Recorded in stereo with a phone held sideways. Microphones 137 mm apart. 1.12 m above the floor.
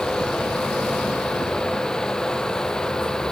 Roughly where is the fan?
Centre.